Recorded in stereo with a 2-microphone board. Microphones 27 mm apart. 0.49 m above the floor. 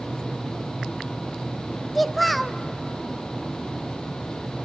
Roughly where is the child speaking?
Centre.